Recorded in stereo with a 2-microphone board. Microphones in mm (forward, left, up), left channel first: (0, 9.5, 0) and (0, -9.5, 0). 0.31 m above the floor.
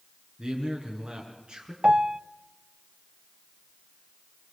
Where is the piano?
45° right (ahead or behind), 0.5 m.